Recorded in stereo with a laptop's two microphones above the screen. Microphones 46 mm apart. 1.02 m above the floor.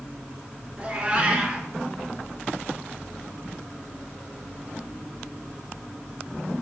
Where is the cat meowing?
20° right (ahead or behind), 1.0 m.